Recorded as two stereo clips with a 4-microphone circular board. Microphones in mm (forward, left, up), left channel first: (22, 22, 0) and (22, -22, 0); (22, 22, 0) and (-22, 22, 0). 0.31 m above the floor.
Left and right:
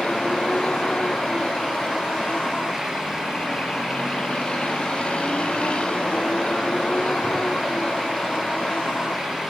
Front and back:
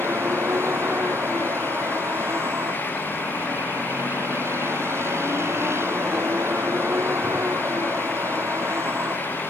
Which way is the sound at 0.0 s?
160° left.